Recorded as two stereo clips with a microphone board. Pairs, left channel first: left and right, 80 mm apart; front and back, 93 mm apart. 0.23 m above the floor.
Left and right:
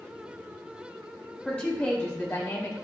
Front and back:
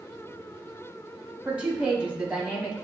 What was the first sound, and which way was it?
A woman speaking, 135° left.